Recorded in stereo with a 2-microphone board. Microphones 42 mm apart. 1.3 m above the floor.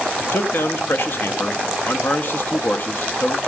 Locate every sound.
0.2 s a man speaking: 50° left (ahead or behind), 0.6 m